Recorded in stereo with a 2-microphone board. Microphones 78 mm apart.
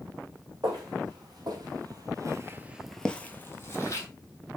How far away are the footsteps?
About 1.7 m.